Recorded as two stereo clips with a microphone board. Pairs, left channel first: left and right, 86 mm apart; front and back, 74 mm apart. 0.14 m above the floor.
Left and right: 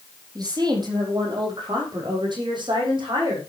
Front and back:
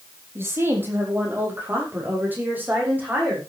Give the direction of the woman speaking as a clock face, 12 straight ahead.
4 o'clock.